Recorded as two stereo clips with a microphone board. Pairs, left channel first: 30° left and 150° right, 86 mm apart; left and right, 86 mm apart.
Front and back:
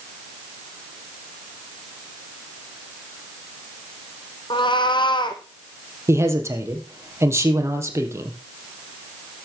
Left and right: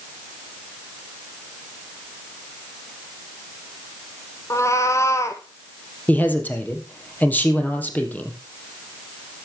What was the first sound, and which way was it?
A cat meowing, 40° left.